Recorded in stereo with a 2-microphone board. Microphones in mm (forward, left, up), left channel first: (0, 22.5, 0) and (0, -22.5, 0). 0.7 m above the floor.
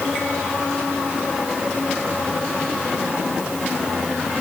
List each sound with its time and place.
Only background noise.